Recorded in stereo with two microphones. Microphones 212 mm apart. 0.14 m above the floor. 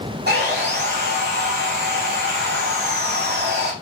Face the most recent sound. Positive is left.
turn(degrees=-55)  # may be behind; listen again after turning